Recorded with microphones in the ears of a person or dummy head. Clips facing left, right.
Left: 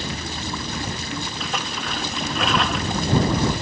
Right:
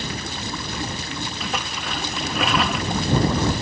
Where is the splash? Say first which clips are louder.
Even; 10° right (ahead or behind).